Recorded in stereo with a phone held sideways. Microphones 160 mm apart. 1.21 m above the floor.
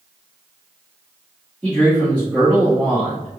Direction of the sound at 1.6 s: 10° left (ahead or behind).